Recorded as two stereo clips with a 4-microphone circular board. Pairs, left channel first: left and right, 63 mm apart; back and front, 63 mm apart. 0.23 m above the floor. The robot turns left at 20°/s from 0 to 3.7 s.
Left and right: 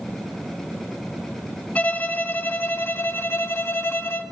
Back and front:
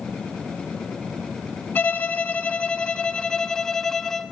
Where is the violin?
140° left, 0.7 m; by 4.2 s 100° left, 0.7 m.